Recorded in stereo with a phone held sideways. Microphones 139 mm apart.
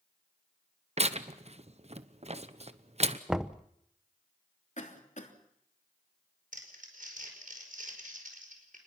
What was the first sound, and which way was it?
Tearing paper, 50° right (ahead or behind).